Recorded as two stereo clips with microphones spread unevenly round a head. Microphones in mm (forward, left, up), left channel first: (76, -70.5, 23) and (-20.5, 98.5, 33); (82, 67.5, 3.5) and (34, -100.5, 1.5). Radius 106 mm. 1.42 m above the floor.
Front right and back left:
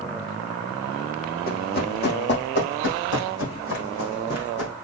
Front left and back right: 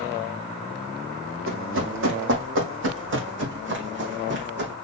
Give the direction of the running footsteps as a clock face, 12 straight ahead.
4 o'clock.